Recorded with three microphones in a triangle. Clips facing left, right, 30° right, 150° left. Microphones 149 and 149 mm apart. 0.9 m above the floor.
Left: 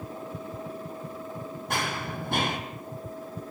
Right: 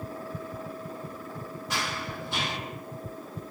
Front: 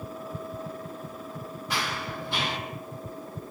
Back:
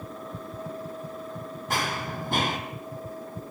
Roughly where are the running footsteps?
Behind left.